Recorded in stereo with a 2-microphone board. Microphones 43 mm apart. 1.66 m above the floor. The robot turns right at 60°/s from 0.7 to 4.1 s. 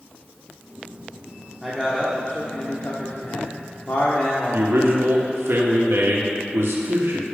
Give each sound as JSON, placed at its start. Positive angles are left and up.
{"t": 1.6, "sound": "a man speaking", "azimuth_deg": -15, "distance_m": 1.0}
{"t": 4.5, "sound": "a man speaking", "side_deg": -80, "distance_m": 1.3}